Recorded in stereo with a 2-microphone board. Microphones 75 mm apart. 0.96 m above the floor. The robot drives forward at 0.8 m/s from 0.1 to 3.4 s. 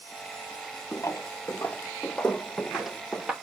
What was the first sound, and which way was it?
Footsteps, 35° left (ahead or behind).